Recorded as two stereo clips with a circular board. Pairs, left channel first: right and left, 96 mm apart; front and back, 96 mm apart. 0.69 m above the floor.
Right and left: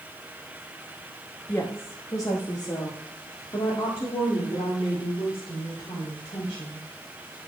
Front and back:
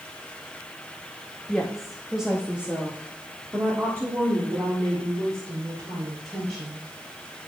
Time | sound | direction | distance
1.5 | a woman speaking | 70° right | 1.0 m